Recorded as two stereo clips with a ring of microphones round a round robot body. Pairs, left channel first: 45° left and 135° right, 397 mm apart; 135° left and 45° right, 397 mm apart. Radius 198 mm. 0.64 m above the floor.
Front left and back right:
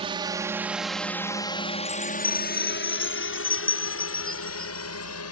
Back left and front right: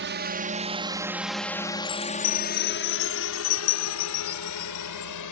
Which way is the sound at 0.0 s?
70° right.